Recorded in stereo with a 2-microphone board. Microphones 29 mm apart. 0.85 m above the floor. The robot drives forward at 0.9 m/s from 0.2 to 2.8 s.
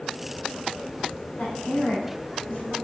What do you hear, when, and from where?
1.4 s a woman speaking: 70° left (ahead or behind), 4 m; by 2.8 s 55° left (ahead or behind), 4.5 m